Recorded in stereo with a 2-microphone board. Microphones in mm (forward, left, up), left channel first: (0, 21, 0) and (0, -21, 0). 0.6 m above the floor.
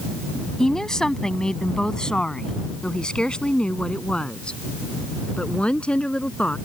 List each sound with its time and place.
0.6 s a woman speaking: 10° left (ahead or behind); by 6.6 s 25° left (ahead or behind)